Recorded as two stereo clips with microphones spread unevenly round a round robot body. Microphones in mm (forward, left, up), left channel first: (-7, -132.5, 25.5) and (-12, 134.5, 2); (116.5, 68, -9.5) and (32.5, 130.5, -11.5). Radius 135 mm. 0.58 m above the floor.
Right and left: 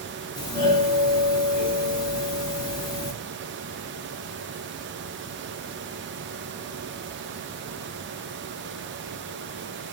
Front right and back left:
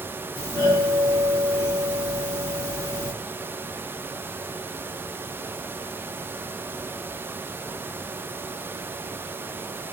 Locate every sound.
0.4 s a doorbell: 25° right, 1.2 m